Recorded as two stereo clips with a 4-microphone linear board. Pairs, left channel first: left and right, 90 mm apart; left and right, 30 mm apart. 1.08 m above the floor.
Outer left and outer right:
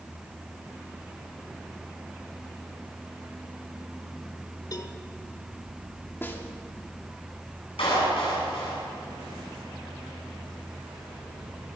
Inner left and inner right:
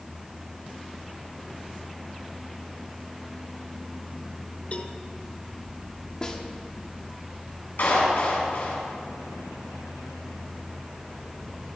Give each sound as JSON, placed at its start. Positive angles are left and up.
{"t": 4.7, "sound": "a cowbell", "side_deg": 40, "distance_m": 1.3}
{"t": 6.2, "sound": "a snare drum", "side_deg": 25, "distance_m": 2.5}
{"t": 7.8, "sound": "a clap", "side_deg": 85, "distance_m": 8.5}